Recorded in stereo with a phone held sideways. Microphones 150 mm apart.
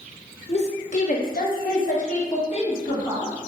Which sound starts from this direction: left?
A woman speaking, at 0.5 s.